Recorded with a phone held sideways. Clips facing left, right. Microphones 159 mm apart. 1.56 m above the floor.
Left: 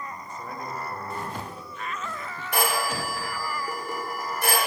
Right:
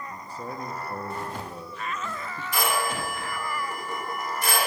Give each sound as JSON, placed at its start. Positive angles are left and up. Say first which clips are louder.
{"t": 0.1, "sound": "a man speaking", "louder": "right 1 dB", "side_deg": -35, "distance_m": 1.0}
{"t": 2.5, "sound": "a phone ringing", "louder": "left 1 dB", "side_deg": 55, "distance_m": 2.5}